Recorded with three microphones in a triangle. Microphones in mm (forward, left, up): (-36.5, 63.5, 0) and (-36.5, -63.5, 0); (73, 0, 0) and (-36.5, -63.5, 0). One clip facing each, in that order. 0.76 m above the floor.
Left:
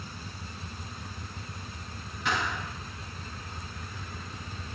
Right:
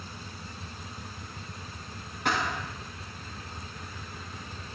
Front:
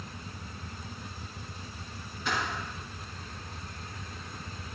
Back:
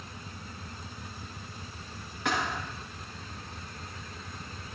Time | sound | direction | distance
2.2 | a thud | 130° right | 6.5 m